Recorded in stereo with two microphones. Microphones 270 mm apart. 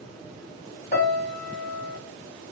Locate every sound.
0.9 s a piano: 35° left (ahead or behind), 1.0 m